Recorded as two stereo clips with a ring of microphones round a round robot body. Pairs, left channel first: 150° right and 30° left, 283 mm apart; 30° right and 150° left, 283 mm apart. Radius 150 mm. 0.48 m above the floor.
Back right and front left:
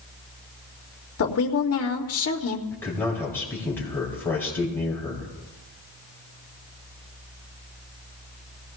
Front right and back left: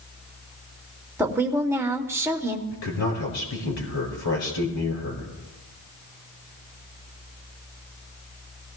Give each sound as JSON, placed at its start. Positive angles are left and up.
{"t": 1.2, "sound": "a woman speaking", "azimuth_deg": -130, "distance_m": 1.7}
{"t": 2.7, "sound": "a man speaking", "azimuth_deg": -70, "distance_m": 6.5}